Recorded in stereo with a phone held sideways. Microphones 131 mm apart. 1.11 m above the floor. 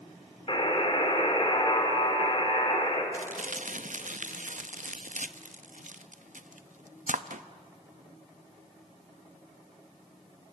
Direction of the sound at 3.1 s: 75° right (ahead or behind).